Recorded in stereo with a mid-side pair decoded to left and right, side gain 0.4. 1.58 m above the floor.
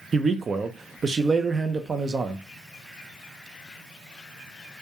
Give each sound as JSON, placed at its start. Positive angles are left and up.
{"t": 0.1, "sound": "a man speaking", "azimuth_deg": -40, "distance_m": 0.5}